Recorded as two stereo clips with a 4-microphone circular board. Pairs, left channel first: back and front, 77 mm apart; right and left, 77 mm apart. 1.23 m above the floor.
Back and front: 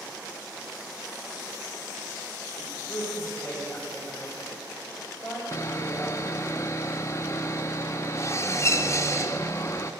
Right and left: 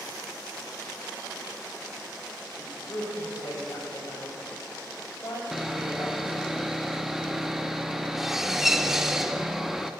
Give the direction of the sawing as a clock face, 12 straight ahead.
6 o'clock.